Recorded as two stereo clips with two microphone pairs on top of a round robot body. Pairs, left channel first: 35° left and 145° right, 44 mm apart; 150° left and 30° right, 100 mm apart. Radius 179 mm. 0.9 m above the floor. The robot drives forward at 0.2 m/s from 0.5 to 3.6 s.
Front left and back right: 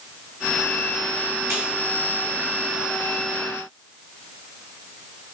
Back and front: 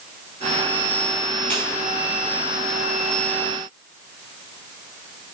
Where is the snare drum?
130° right, 2.5 m.